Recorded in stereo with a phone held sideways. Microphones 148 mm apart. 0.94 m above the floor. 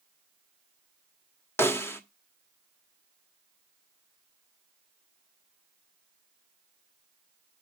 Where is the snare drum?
15° left (ahead or behind), 0.9 m.